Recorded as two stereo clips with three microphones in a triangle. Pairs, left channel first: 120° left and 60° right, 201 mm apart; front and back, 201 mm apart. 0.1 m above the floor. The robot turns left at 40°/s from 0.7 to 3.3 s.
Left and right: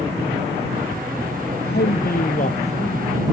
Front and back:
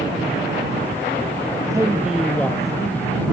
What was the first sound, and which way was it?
A man speaking, 115° left.